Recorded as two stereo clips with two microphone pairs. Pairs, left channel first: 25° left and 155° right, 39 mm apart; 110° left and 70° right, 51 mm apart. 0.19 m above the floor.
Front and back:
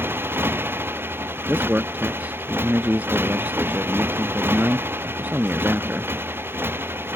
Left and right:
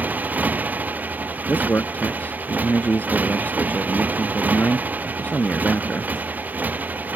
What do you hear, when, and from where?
0.0 s a motorcycle: 125° right
1.5 s a man speaking: 160° left